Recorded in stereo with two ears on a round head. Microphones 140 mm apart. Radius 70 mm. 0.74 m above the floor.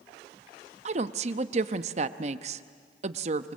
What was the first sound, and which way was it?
A woman speaking, 45° right (ahead or behind).